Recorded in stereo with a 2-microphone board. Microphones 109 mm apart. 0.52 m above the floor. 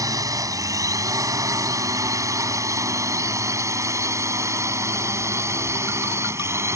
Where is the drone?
30° right (ahead or behind); by 6.8 s 25° right (ahead or behind).